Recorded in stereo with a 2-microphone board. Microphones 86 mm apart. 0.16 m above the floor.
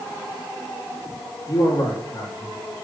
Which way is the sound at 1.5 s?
50° left (ahead or behind).